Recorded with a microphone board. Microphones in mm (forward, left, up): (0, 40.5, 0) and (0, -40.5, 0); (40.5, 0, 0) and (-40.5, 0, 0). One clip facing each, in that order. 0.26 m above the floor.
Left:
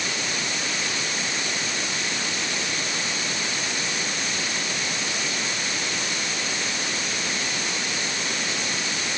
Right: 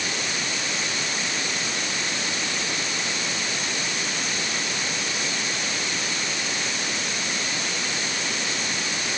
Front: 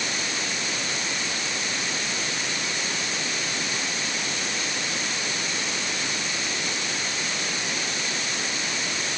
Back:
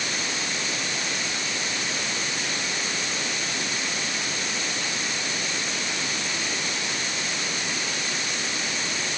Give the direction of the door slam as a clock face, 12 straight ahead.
No door slam in this recording.